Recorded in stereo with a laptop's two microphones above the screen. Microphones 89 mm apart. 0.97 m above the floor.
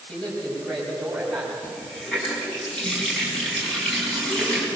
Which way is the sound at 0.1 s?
10° left (ahead or behind).